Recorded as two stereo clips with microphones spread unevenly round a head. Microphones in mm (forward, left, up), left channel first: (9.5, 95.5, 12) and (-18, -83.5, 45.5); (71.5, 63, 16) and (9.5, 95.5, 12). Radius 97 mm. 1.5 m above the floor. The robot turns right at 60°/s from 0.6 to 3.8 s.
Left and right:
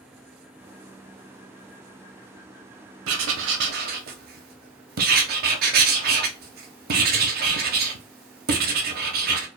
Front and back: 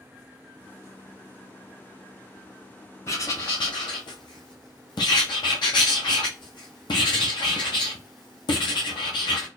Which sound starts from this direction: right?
Writing, at 3.1 s.